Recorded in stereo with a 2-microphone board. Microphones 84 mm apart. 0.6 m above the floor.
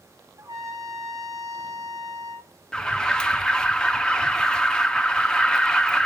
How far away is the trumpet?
About 1.9 m.